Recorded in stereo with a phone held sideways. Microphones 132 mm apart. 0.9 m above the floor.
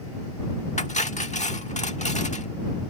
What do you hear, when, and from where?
0.8 s cutlery clinking: 70° left (ahead or behind)